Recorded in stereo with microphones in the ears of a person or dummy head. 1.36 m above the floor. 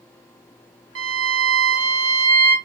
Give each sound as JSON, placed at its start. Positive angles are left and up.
{"t": 0.9, "sound": "a violin", "side_deg": -70, "distance_m": 1.1}